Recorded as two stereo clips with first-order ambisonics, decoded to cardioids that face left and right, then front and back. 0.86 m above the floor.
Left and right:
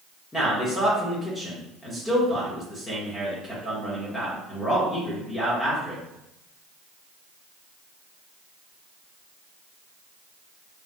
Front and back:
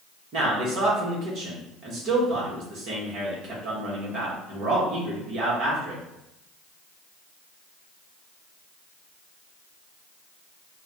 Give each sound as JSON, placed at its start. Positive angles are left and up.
{"t": 0.3, "sound": "a man speaking", "azimuth_deg": 165, "distance_m": 1.1}